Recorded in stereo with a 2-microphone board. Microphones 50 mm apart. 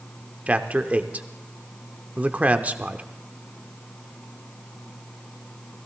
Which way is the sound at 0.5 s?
30° right (ahead or behind).